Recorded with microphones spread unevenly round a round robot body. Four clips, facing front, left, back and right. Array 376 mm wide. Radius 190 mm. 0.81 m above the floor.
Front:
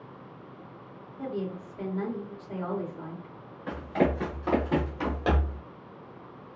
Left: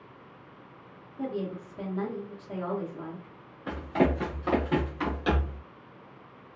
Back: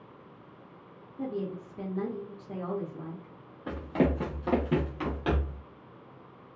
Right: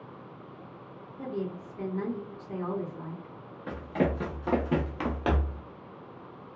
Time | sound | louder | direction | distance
1.2 | a woman speaking | left 2 dB, even | 175° left | 1.1 m
3.7 | running footsteps | left 3 dB, front 1 dB | straight behind | 1.3 m